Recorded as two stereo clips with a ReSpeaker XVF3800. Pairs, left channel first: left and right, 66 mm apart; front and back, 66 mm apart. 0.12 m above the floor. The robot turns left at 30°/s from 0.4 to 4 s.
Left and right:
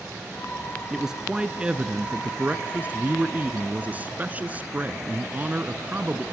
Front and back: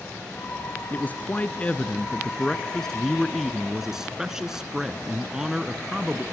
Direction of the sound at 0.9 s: 15° right.